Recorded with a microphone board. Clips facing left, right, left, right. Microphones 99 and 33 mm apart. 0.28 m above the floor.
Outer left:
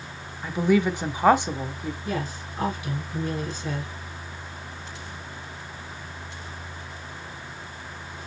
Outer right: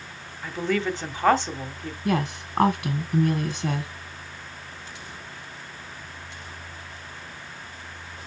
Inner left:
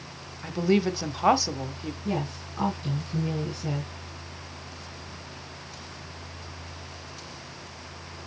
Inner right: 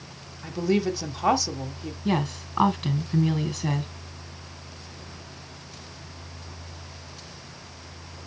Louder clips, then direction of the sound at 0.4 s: Outer left 4 dB, inner left 1 dB; 15° left (ahead or behind).